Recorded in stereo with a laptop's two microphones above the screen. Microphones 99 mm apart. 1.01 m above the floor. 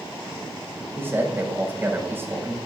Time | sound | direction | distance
0.9 | a man speaking | 25° right (ahead or behind) | 5.5 m